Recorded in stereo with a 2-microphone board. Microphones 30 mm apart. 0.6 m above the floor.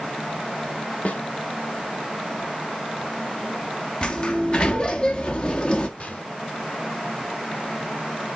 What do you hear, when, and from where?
1.1 s a snare drum: 50° left (ahead or behind), 1.7 m
4.0 s a sliding door: 35° left (ahead or behind), 1.3 m
6.0 s a gunshot: 50° left (ahead or behind), 2.0 m